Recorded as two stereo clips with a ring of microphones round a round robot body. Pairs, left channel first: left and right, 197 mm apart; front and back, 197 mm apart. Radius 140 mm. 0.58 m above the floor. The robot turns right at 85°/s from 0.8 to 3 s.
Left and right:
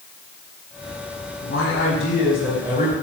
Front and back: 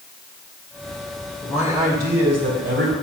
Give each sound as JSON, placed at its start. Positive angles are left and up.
{"t": 1.4, "sound": "a man speaking", "azimuth_deg": 85, "distance_m": 2.5}